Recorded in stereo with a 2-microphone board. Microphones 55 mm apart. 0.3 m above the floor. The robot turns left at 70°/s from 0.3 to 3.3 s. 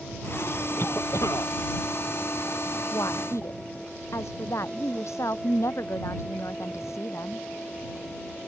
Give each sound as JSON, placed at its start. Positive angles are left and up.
{"t": 0.8, "sound": "a cough", "azimuth_deg": 135}
{"t": 2.9, "sound": "a woman speaking", "side_deg": 80}